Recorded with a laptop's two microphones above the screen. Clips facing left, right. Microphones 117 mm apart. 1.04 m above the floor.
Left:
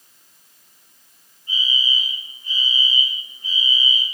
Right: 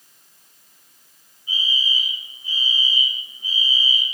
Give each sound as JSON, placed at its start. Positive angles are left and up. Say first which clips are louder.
{"t": 1.5, "sound": "a fire alarm", "louder": "left 1 dB", "side_deg": -10, "distance_m": 6.0}